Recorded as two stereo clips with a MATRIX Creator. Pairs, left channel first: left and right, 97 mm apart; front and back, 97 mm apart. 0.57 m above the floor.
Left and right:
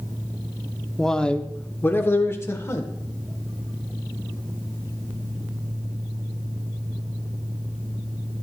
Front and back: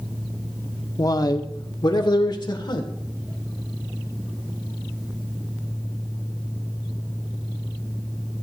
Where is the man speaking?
5° left, 0.8 m; by 2.9 s 35° left, 1.7 m.